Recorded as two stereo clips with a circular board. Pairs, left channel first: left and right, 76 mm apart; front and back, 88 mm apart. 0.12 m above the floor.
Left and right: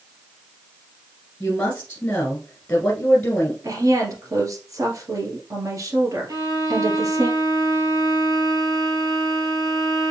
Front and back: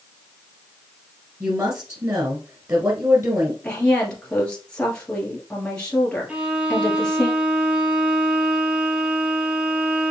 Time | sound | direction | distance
1.4 | a woman speaking | 150° left | 1.7 m
3.6 | a woman speaking | 75° right | 2.0 m
6.3 | a violin | 105° right | 1.4 m